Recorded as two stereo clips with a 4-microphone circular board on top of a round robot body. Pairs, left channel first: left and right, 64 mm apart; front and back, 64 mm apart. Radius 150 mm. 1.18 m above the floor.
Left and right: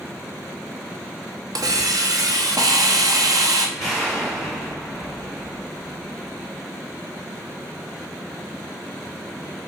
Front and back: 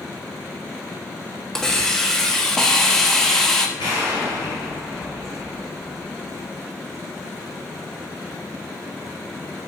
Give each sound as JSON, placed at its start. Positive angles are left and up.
{"t": 1.6, "sound": "a hiss", "azimuth_deg": -85, "distance_m": 1.2}
{"t": 3.8, "sound": "an explosion", "azimuth_deg": 0, "distance_m": 4.0}